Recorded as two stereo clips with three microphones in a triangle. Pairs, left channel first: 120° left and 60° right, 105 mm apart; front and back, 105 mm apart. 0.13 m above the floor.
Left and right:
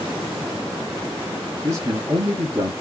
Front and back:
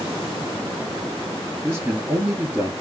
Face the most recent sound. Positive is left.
turn(degrees=-110)